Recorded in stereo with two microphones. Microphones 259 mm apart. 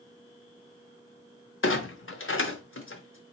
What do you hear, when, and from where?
1.6 s a clunk: 50° left (ahead or behind), 0.7 m